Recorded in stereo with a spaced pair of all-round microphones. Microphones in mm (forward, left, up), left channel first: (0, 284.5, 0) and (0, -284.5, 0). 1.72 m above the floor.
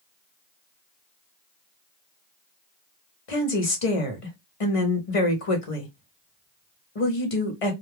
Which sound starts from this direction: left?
A woman speaking, at 3.3 s.